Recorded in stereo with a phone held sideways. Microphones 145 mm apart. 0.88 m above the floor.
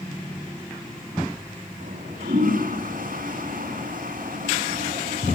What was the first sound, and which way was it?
A toilet flushing, 70° right (ahead or behind).